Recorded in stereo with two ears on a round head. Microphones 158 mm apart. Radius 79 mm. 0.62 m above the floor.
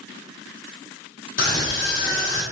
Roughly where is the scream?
Left.